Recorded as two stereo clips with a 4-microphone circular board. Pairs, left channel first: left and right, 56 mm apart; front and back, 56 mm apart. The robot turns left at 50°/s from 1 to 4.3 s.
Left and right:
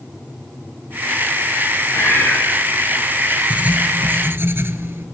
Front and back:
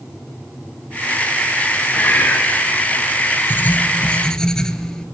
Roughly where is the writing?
Ahead right.